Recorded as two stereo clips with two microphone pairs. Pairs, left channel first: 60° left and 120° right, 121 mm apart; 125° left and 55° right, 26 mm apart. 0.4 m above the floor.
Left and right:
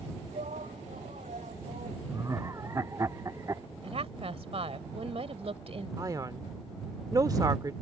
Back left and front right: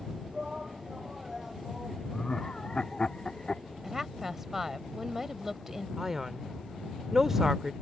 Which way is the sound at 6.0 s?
125° right.